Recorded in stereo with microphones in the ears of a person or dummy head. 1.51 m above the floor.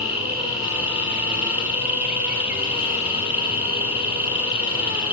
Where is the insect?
10° right (ahead or behind), 1.5 m.